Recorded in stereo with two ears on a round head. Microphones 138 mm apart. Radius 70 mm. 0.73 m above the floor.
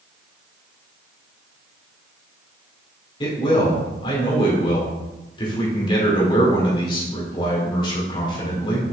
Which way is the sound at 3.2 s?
35° left (ahead or behind).